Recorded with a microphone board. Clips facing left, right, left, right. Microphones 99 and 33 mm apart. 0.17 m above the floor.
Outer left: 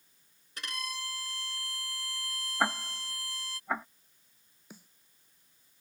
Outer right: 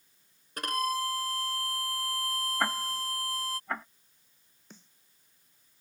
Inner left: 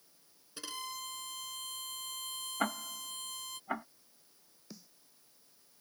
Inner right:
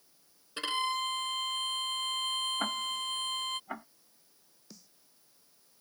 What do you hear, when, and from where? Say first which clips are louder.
0.6 s a violin: outer right 11 dB, inner right 11 dB; 50° right (ahead or behind)
2.6 s ticking: outer left 2 dB, inner right 3 dB; 10° left (ahead or behind)
4.7 s a snare drum: outer left 2 dB, inner left 3 dB; 10° left (ahead or behind)